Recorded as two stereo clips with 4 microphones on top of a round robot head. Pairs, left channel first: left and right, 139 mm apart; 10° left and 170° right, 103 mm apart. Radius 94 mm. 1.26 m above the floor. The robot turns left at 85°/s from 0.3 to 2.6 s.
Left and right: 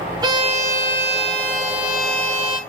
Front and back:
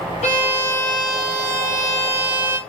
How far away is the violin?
About 1.3 m.